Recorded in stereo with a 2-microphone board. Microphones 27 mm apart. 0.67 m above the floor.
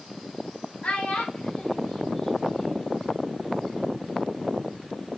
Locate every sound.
0.8 s a child speaking: 60° left (ahead or behind), 0.8 m; by 3.0 s 20° left (ahead or behind), 1.5 m